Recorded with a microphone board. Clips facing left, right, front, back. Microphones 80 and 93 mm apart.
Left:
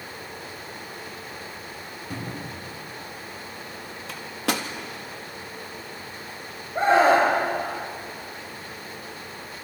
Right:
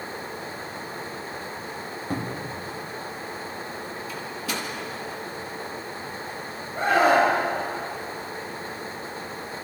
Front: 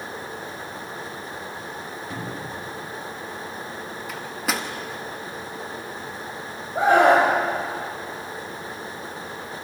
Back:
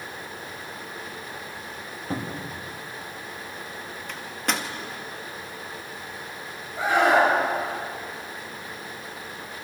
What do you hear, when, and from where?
2.1 s a cupboard door: 130° right, 2.5 m
4.1 s a microwave: 85° left, 1.7 m
6.8 s a scream: 35° left, 6.5 m